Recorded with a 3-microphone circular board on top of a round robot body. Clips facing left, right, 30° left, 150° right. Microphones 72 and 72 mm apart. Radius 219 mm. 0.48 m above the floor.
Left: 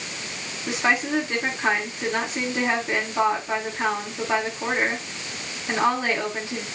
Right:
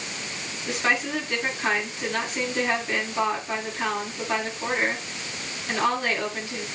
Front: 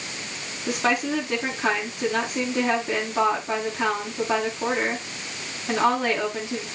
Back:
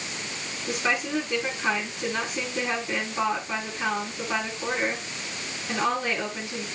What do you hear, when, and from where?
0.7 s a woman speaking: 20° left, 8 m